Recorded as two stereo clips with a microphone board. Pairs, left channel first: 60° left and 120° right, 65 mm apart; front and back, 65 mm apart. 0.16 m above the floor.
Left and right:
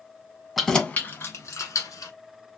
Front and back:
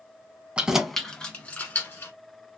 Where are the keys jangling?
155° left, 0.7 m; by 2.1 s 50° left, 1.4 m.